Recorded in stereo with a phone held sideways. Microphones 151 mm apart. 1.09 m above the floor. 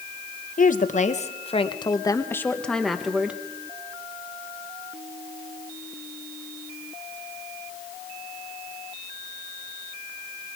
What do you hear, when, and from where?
0.6 s a woman speaking: 60° left (ahead or behind), 1.2 m; by 3.4 s 10° right (ahead or behind), 1.3 m